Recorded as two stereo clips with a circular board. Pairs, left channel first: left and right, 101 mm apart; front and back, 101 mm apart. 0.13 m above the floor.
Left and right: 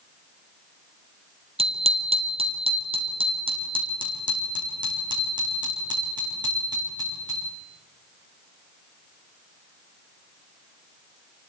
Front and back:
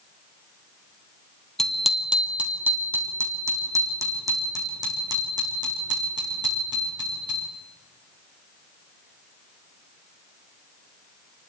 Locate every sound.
1.6 s a bicycle bell: 85° right, 2.5 m; by 7.5 s 140° right, 9 m